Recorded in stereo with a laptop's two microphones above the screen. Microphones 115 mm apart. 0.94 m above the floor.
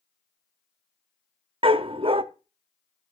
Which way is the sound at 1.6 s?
50° right (ahead or behind).